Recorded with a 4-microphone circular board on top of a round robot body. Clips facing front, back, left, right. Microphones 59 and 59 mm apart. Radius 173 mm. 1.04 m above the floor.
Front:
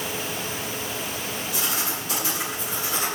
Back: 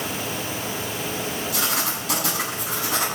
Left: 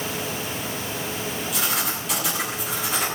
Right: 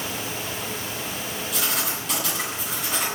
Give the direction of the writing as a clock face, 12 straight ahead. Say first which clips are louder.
Back 2 dB, even; 6 o'clock.